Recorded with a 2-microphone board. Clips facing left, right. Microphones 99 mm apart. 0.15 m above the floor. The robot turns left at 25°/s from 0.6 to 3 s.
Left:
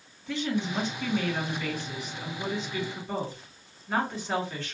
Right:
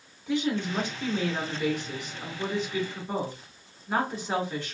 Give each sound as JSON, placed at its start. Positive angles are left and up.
{"t": 0.3, "sound": "a woman speaking", "side_deg": -15, "distance_m": 1.4}